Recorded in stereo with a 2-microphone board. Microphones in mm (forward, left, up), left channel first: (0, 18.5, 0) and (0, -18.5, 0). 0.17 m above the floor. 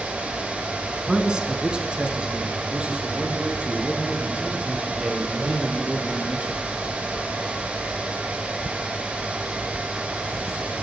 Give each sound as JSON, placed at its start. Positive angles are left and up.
{"t": 0.9, "sound": "a man speaking", "side_deg": -20, "distance_m": 1.1}